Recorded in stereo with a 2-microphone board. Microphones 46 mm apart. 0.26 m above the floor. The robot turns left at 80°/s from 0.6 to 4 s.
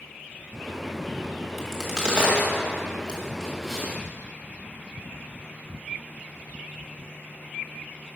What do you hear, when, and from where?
1.6 s a crack: centre (ahead or behind), 1.6 m; by 4.0 s 5° left (ahead or behind), 1.6 m